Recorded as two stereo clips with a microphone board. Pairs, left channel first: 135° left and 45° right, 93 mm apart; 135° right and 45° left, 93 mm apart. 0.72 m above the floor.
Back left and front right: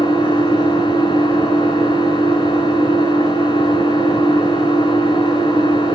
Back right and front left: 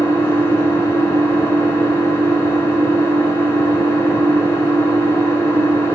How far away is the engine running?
About 6 m.